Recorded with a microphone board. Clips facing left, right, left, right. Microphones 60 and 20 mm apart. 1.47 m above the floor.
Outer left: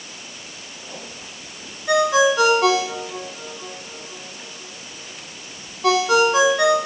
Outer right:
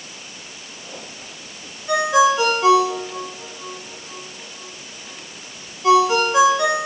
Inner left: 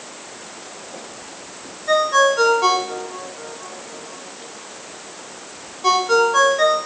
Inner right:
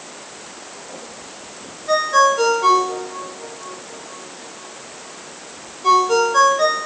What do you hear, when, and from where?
1.9 s a ringtone: 80° left, 2.5 m